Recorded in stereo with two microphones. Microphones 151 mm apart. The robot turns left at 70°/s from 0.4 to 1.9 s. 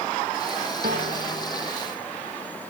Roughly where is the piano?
Right.